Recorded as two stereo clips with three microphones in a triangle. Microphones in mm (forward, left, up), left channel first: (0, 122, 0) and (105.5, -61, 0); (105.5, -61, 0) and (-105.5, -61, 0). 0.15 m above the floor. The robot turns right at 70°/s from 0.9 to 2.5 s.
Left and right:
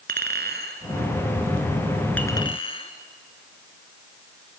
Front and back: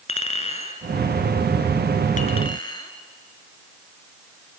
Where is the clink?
50° right, 1.6 m; by 2.9 s 60° left, 1.6 m.